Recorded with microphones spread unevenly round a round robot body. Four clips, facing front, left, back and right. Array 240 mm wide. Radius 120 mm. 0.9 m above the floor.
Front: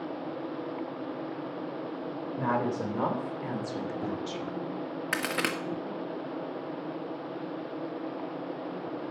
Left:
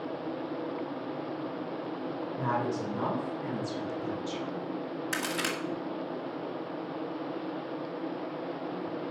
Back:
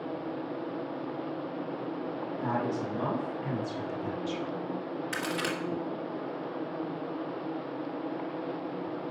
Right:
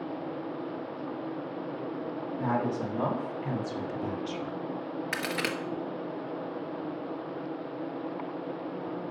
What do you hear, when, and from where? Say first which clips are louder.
2.4 s a woman speaking: right 2 dB, front 3 dB; straight ahead, 4 m; by 4.6 s 35° right, 2 m
5.1 s a crack: right 1 dB, front 2 dB; 10° right, 1.5 m